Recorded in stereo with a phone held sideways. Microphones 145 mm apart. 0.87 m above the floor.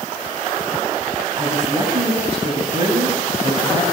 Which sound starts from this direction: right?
A woman speaking, at 1.4 s.